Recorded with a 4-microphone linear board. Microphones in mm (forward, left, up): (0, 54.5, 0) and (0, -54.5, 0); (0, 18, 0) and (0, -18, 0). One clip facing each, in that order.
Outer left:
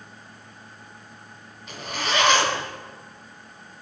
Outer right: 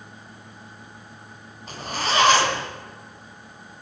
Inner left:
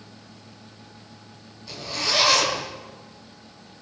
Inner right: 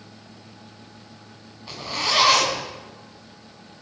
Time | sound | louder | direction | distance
1.7 | a zipper | outer right 2 dB, inner right 2 dB | 40° right (ahead or behind) | 2 m